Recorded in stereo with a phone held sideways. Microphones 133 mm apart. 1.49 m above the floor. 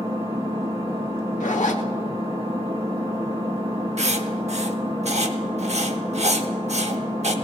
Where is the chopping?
No chopping in this recording.